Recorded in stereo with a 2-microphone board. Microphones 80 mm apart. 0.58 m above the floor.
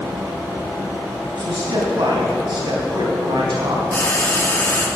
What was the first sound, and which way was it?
A man speaking, 80° right.